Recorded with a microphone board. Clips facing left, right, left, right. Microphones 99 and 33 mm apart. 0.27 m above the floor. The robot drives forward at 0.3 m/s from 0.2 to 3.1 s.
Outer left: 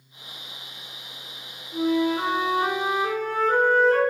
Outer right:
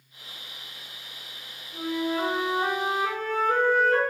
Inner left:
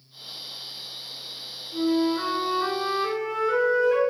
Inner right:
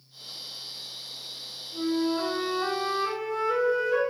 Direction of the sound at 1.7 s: 80° left.